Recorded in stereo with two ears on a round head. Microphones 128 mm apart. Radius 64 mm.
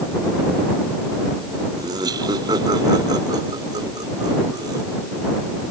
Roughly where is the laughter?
Right.